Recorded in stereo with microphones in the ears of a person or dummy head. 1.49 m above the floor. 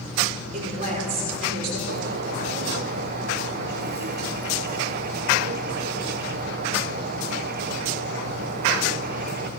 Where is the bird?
50° right (ahead or behind), 1.1 m.